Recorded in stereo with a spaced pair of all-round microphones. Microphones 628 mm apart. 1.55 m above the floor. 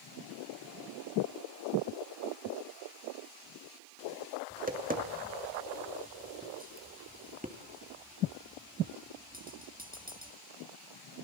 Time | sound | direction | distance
4.5 | tapping | 15° right (ahead or behind) | 2.5 m